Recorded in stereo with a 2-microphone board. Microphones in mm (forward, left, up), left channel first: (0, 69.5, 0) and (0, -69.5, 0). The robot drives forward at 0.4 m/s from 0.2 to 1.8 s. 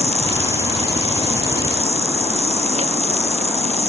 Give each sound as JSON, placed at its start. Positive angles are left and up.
{"t": 0.0, "sound": "an insect", "side_deg": -50}